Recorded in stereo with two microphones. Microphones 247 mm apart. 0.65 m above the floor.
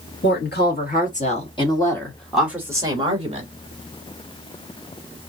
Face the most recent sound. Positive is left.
turn(degrees=-30)  # may be behind; listen again after turning